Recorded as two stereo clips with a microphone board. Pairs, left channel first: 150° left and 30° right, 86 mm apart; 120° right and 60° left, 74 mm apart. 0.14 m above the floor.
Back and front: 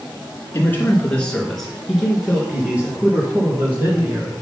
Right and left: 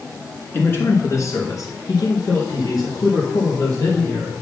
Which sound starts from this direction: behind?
A man speaking, at 0.5 s.